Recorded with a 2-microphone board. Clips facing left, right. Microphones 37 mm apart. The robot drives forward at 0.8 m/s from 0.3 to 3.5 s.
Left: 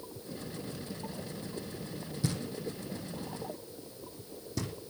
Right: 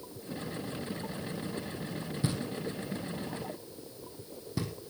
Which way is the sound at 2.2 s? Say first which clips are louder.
Right 1 dB; 25° right (ahead or behind).